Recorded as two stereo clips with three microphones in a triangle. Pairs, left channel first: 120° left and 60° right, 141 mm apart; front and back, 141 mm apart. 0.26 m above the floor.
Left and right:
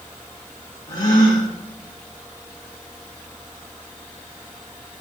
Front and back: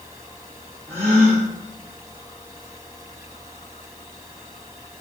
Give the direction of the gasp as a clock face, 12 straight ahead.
8 o'clock.